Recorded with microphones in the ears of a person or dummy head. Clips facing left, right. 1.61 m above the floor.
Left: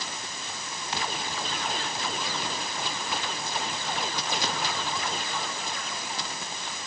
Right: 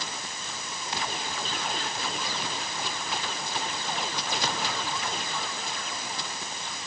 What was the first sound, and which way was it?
Only background noise.